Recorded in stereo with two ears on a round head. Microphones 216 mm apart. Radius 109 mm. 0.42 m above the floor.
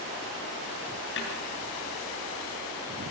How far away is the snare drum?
About 7 m.